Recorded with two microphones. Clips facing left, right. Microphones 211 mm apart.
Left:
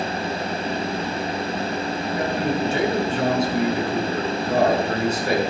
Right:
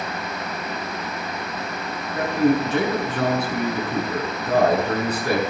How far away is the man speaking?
About 6.5 m.